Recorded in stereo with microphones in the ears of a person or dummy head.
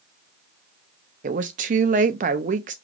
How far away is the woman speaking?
About 0.6 m.